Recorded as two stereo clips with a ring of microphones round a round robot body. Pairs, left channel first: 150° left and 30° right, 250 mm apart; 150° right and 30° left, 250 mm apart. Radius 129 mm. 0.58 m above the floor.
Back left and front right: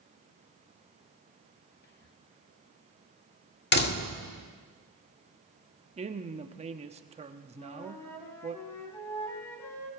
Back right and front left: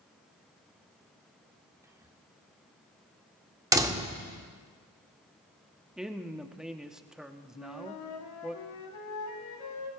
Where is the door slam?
105° left, 1.2 m.